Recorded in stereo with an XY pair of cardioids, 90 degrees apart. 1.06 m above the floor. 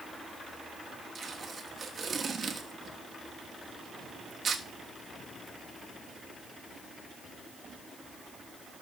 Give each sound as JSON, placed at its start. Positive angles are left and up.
{"t": 1.1, "sound": "tape being pulled", "azimuth_deg": -40, "distance_m": 1.3}